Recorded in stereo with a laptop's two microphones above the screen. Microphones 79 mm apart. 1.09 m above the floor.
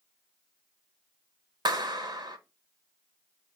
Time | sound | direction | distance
1.6 | a clap | 60° right (ahead or behind) | 0.7 m